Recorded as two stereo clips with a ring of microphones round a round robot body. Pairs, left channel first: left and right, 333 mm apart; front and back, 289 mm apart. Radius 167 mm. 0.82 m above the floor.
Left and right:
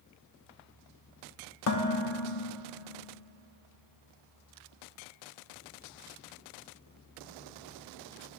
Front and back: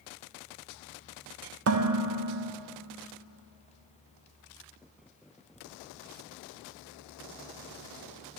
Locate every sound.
1.7 s dishes clattering: 135° left, 0.8 m